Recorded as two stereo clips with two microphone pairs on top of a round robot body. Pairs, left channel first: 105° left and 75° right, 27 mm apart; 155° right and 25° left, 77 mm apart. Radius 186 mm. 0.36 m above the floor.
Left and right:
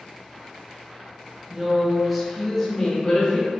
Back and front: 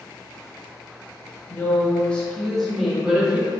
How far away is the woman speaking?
About 1.1 m.